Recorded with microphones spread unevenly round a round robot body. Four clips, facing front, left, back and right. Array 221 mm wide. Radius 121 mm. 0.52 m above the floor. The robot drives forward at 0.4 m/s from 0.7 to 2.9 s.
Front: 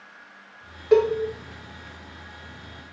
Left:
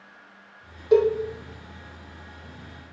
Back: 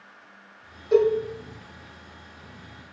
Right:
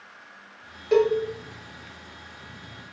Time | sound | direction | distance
0.9 | a cowbell | straight ahead | 1.1 m